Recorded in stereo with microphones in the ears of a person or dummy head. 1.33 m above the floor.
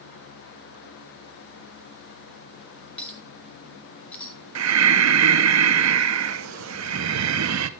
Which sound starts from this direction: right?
Breathing, at 4.5 s.